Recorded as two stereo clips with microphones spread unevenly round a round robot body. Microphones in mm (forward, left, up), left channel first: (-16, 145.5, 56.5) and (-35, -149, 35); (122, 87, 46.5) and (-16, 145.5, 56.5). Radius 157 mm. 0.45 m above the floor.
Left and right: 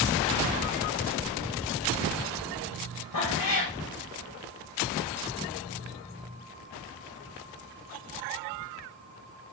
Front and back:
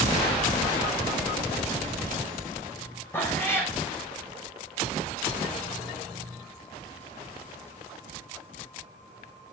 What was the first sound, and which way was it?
A cat meowing, 50° left.